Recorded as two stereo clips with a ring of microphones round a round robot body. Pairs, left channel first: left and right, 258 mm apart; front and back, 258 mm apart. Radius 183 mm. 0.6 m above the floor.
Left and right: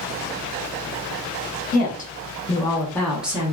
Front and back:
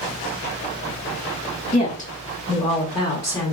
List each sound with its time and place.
1.7 s a woman speaking: 45° left, 1.3 m; by 3.5 s 65° right, 0.9 m